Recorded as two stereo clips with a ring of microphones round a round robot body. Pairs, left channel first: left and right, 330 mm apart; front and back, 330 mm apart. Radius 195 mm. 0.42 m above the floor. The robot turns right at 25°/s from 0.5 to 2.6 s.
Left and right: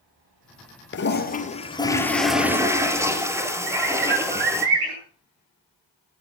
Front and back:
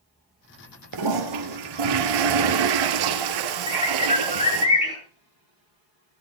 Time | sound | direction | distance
0.9 | a toilet flushing | 145° left | 2.5 m
3.7 | a bird | 70° right | 9.5 m